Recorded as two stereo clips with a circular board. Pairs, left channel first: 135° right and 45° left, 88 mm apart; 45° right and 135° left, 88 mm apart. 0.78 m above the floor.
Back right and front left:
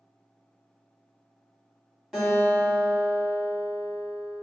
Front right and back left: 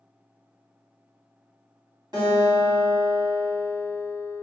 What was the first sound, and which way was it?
A guitar, 135° left.